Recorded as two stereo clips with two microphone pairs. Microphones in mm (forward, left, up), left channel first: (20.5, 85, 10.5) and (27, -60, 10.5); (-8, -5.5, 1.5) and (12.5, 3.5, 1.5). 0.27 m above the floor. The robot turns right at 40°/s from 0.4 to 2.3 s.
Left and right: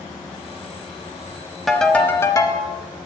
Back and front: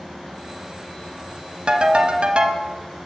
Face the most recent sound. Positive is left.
turn(degrees=30)